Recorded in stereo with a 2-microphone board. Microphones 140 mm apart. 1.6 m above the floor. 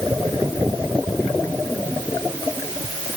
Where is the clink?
I don't hear a clink.